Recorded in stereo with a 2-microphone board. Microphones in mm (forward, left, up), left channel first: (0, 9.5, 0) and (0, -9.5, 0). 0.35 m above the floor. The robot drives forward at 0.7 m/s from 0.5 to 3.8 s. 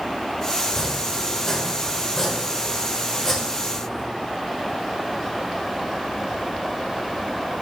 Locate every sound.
0.6 s chopping: 20° left (ahead or behind), 1.7 m; by 4.1 s 15° left (ahead or behind), 2 m